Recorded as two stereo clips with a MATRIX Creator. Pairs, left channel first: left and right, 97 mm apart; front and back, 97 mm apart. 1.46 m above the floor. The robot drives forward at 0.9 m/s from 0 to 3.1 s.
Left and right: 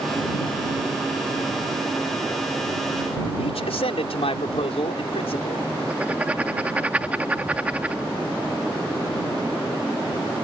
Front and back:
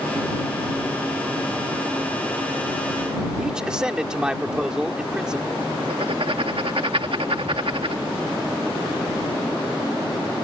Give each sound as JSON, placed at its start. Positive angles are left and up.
{"t": 3.4, "sound": "a man speaking", "azimuth_deg": 95}
{"t": 5.9, "sound": "writing", "azimuth_deg": -165}